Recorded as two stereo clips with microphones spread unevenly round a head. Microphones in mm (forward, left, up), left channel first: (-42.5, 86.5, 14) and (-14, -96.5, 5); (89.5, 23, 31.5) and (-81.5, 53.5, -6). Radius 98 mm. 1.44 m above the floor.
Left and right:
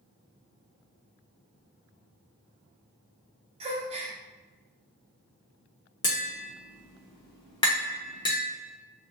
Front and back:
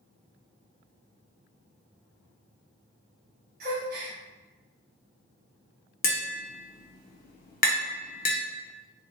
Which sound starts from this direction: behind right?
A gasp, at 3.6 s.